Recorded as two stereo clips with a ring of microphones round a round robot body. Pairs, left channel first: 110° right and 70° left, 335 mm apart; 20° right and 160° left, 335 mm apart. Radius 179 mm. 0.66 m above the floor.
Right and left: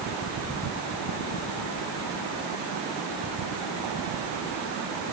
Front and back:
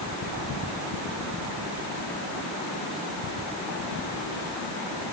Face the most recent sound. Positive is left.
No sound to turn to.